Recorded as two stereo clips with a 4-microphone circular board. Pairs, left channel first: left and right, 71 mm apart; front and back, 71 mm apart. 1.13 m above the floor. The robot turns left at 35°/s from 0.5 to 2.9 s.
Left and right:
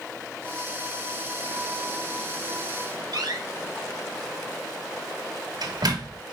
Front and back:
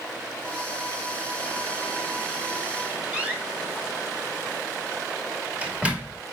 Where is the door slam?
105° right, 2.0 m.